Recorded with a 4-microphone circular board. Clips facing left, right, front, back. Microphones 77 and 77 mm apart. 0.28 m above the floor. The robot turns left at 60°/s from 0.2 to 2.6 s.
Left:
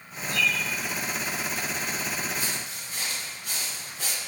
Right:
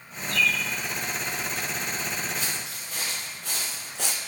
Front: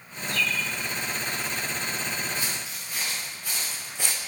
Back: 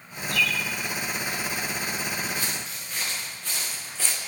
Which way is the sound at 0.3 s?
35° left.